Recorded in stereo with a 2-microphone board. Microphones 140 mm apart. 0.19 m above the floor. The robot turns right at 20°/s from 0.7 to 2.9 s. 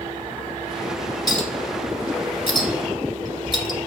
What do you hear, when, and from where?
1.3 s a clink: 30° left (ahead or behind), 0.6 m; by 3.8 s 35° left (ahead or behind), 0.6 m